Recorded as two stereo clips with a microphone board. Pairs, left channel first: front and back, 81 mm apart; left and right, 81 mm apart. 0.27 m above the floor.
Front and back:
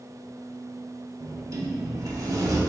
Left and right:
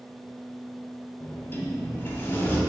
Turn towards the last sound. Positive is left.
turn(degrees=145)